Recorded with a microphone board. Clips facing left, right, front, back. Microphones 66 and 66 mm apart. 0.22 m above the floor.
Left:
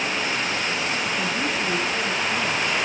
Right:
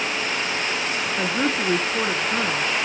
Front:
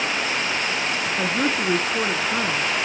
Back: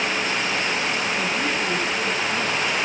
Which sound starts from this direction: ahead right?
A woman speaking, at 1.2 s.